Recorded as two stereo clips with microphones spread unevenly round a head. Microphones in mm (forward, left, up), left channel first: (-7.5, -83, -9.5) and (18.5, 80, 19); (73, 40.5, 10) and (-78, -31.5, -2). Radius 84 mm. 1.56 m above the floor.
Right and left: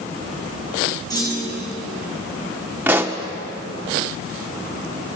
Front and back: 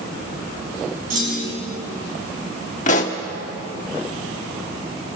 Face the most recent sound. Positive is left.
turn(degrees=20)